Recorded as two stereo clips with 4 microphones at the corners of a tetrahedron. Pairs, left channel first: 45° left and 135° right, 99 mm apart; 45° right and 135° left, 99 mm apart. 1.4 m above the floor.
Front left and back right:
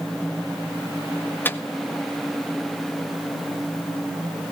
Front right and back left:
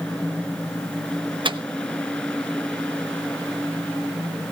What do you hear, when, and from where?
1.4 s a microwave: 110° left, 0.7 m